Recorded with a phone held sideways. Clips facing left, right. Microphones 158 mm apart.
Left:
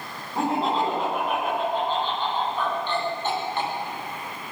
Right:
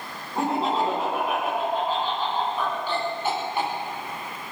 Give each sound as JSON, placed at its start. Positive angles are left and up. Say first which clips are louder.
{"t": 0.3, "sound": "laughter", "louder": "even", "side_deg": 0, "distance_m": 10.0}